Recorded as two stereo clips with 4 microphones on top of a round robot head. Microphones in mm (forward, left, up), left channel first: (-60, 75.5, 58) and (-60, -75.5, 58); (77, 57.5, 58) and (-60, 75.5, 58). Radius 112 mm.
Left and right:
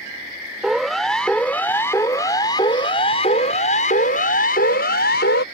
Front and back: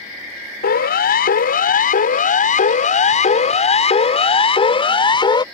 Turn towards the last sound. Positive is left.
turn(degrees=50)